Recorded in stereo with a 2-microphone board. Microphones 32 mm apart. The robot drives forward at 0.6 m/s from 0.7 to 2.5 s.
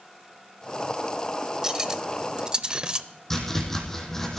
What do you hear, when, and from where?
1.6 s cutlery clinking: 20° right (ahead or behind), 0.8 m; by 3.1 s 25° right (ahead or behind), 0.7 m
3.3 s chopping: 10° left (ahead or behind), 3.5 m